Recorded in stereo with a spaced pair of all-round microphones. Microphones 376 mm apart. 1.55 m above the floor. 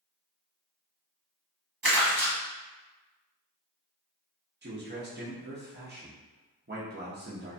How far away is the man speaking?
About 0.7 m.